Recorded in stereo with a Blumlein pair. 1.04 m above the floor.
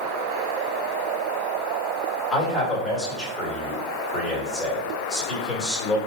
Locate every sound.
2.3 s a man speaking: 15° left, 1.8 m